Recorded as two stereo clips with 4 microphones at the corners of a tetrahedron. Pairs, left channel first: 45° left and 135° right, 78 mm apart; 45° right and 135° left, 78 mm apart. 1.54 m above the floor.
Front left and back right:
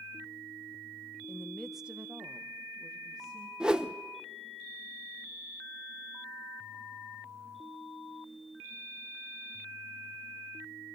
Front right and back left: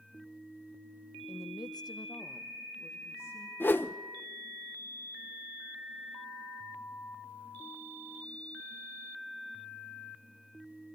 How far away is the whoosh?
About 0.6 m.